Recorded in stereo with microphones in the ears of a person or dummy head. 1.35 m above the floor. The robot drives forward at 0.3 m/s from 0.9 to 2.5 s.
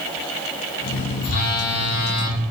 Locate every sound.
1.2 s a phone buzzing: 60° left (ahead or behind), 0.6 m; by 2.4 s 65° left (ahead or behind), 0.5 m